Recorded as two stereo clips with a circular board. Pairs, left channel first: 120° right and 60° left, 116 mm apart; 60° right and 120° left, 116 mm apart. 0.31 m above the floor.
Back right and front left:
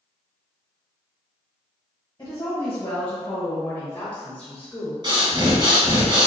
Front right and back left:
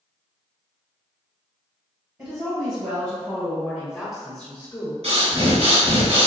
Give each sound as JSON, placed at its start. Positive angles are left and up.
{"t": 2.2, "sound": "a woman speaking", "azimuth_deg": 170, "distance_m": 1.7}
{"t": 5.0, "sound": "breathing", "azimuth_deg": 105, "distance_m": 1.1}